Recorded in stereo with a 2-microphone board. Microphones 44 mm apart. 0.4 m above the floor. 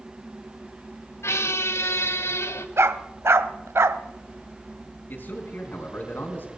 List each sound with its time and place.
1.2 s a squeak: 80° left, 0.7 m
2.8 s a dog barking: 70° right (ahead or behind), 0.6 m
5.1 s a man speaking: 50° left (ahead or behind), 3.5 m